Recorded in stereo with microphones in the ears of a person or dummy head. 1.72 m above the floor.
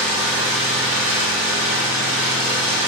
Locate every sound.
0.0 s an engine running: 10° right (ahead or behind), 1.8 m